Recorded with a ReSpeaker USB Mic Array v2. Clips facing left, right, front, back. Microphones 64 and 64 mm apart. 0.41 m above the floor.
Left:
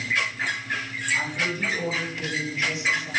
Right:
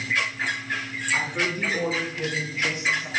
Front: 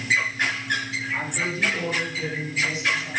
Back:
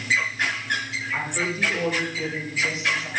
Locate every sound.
1.1 s a woman speaking: 120° right, 5.5 m; by 3.1 s 130° right, 4.5 m